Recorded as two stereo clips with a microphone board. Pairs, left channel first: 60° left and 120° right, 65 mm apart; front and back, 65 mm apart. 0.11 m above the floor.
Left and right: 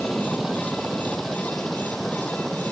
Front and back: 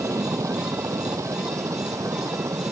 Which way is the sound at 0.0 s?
150° left.